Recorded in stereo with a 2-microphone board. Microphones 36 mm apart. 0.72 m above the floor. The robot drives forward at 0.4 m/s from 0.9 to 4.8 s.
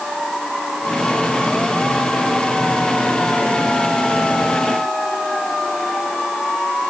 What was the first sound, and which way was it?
Only background noise.